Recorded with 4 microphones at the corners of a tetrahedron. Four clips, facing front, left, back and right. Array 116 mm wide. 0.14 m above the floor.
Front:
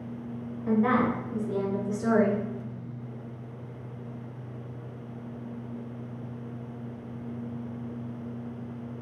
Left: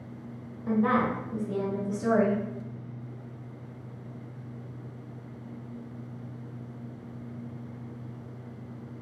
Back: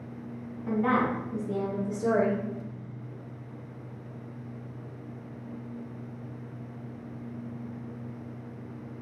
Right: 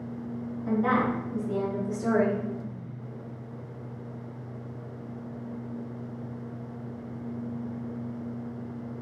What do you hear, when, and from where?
0.7 s a woman speaking: 110° left, 1.3 m; by 2.4 s 15° left, 1.5 m